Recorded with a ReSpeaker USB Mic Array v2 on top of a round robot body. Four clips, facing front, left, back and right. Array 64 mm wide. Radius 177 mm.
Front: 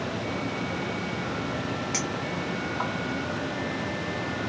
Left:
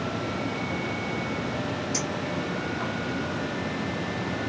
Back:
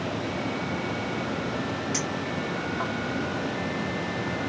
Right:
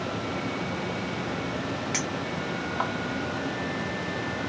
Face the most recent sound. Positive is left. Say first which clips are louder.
# left 1 dB, back 1 dB
turn(degrees=-80)